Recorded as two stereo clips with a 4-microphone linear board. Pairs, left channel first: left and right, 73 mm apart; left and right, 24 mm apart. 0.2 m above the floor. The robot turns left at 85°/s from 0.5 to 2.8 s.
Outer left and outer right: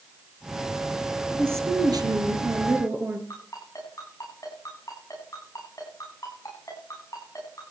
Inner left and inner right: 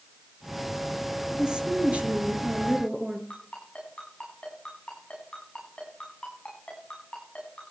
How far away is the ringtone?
About 9 m.